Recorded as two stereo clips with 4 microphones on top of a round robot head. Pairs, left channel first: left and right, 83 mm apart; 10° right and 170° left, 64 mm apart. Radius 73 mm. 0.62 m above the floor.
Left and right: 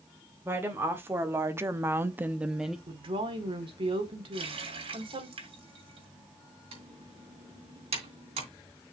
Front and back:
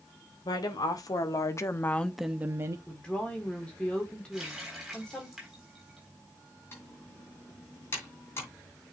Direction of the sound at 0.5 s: 25° right.